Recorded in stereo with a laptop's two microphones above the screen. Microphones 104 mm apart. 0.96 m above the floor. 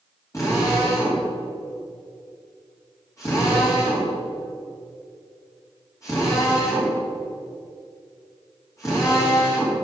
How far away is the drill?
About 2.5 m.